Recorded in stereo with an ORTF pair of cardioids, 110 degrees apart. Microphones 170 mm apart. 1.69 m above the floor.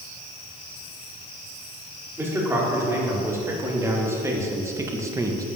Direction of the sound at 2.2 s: 15° right.